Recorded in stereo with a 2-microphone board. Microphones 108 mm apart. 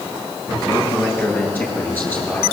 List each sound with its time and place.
0.7 s a man speaking: 20° left (ahead or behind), 8.5 m; by 2.4 s 15° left (ahead or behind), 9.5 m